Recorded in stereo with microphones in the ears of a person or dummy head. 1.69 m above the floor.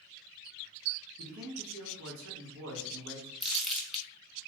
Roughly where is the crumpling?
Centre.